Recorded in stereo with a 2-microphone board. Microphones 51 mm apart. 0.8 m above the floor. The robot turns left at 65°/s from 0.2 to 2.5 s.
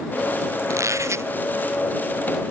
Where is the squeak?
85° right; by 1.3 s 125° right.